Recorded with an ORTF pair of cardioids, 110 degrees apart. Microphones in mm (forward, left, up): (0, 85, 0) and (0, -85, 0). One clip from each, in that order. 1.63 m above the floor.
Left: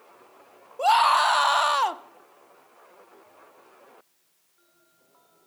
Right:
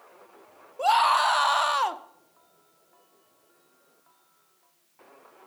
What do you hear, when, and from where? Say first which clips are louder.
0.8 s a scream: left 2 dB; 10° left, 0.6 m